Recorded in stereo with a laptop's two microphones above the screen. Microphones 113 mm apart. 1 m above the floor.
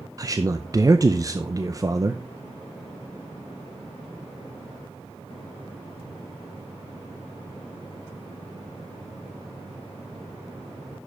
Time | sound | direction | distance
0.2 | a man speaking | 30° right (ahead or behind) | 0.6 m